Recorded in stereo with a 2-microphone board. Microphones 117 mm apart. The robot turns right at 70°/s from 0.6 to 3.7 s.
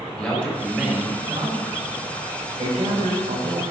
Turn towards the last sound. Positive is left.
turn(degrees=-50)